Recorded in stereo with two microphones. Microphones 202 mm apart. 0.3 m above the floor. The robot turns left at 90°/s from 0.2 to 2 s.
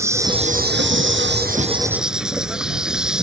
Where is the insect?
15° right; by 3.2 s 175° right.